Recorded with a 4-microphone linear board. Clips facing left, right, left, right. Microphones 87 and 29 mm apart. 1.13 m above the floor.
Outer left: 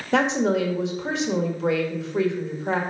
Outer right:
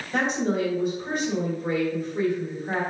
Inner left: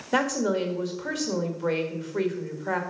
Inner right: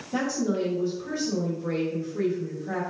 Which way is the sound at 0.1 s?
80° left.